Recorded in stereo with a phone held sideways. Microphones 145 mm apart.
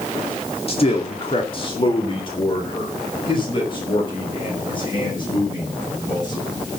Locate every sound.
0.7 s a man speaking: 40° left (ahead or behind), 2.0 m; by 6.5 s 35° left (ahead or behind), 7.5 m